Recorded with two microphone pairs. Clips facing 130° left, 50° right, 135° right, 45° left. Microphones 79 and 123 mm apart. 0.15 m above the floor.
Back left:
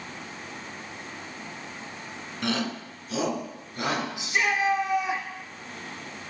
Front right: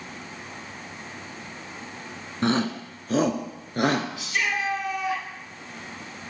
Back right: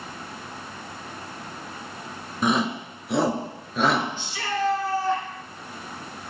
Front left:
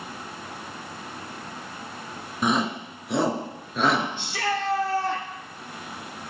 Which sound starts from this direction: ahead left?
A shout, at 4.2 s.